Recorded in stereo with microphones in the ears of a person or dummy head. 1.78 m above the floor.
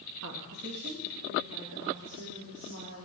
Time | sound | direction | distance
0.2 | a woman speaking | 75° right (ahead or behind) | 1.8 m